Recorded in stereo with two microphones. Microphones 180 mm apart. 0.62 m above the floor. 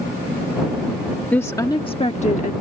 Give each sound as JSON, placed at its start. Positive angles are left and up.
{"t": 1.3, "sound": "a woman speaking", "side_deg": 10}